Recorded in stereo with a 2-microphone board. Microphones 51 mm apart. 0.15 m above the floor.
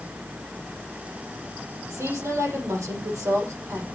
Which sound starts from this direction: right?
A woman speaking, at 1.9 s.